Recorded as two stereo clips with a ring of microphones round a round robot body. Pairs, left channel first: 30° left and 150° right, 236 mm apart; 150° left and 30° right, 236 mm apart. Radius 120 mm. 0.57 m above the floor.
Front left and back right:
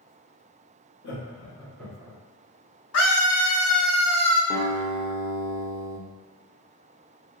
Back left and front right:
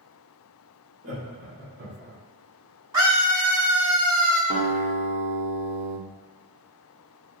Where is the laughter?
5° right, 1.4 m; by 2.2 s 85° right, 1.1 m.